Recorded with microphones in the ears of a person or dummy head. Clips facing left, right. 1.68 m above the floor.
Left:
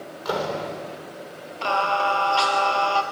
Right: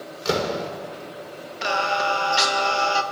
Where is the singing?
20° right (ahead or behind), 1.7 m.